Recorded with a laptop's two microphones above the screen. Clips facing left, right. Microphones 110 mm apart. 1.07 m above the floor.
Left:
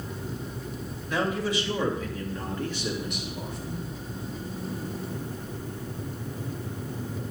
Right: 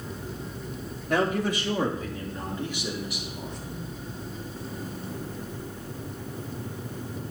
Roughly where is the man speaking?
Right.